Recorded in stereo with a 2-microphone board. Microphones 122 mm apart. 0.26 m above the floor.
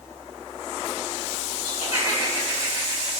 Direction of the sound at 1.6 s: 35° right (ahead or behind).